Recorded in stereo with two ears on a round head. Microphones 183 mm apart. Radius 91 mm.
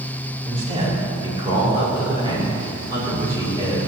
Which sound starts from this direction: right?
A man speaking, at 0.5 s.